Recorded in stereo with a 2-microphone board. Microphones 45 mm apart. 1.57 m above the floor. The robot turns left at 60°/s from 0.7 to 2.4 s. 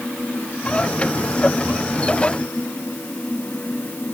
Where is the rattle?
No rattle in this recording.